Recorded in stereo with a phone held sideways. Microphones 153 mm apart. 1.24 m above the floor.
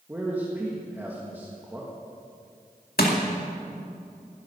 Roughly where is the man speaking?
Centre.